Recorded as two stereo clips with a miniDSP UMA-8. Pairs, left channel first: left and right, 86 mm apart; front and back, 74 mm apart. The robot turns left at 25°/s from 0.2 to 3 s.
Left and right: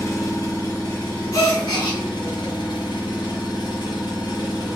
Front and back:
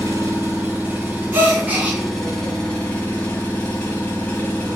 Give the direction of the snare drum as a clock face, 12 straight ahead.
No snare drum in this recording.